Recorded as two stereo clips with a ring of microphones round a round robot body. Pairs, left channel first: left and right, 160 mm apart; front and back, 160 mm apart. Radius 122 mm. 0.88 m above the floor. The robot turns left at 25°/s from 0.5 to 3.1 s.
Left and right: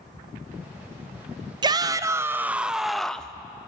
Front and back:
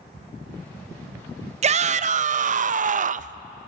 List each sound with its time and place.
1.6 s a shout: 145° right, 0.5 m; by 3.4 s 175° left, 0.5 m